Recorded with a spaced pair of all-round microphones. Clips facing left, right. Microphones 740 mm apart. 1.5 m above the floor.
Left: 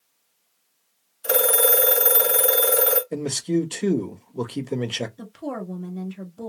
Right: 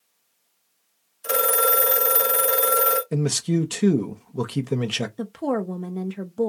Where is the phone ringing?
5° right (ahead or behind), 1.1 m.